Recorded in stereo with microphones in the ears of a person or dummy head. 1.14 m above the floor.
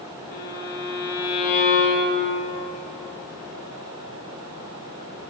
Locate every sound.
0.3 s a violin: 45° left (ahead or behind), 0.9 m